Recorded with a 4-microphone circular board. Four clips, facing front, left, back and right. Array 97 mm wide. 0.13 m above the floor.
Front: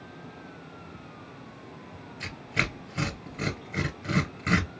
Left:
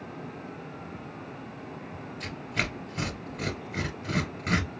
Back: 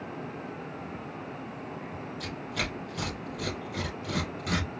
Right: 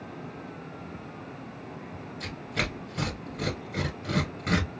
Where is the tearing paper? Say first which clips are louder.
Right 1 dB, front 4 dB; straight ahead, 1.3 m.